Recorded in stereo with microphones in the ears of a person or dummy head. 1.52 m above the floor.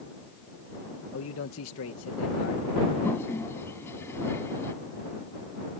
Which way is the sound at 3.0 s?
15° left (ahead or behind).